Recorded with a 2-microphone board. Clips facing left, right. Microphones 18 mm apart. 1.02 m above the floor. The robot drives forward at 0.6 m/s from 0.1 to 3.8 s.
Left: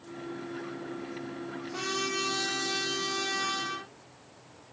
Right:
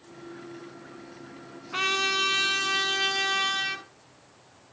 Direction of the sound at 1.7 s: 50° right (ahead or behind).